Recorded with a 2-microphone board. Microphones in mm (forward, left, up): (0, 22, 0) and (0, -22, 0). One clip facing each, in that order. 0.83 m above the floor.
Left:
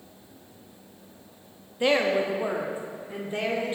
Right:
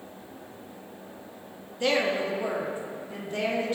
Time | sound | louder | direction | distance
1.8 | a woman speaking | left 2 dB | 20° left (ahead or behind) | 0.8 m